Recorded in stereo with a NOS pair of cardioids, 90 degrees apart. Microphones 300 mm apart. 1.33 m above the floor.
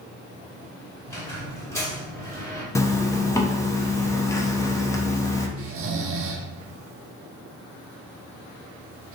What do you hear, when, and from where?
1.1 s a squeak: 10° left, 1.3 m
2.8 s a zipper: 10° left, 0.6 m
5.6 s snoring: 50° right, 0.5 m